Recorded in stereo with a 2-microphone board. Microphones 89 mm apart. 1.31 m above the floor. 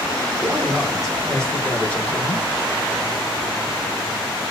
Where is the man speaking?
15° right (ahead or behind), 1.3 m; by 2.5 s 25° left (ahead or behind), 1.6 m.